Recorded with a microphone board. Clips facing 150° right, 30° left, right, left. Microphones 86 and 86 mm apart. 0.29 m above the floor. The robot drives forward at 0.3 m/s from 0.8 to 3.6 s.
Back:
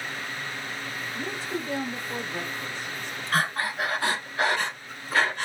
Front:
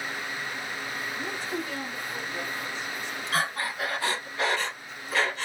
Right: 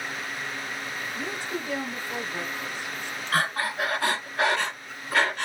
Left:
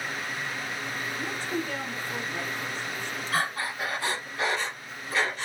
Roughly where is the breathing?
Behind right.